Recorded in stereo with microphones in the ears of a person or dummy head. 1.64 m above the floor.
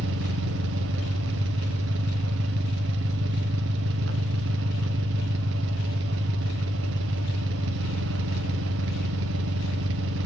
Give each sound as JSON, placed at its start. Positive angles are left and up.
{"t": 0.0, "sound": "an engine running", "side_deg": -65, "distance_m": 0.9}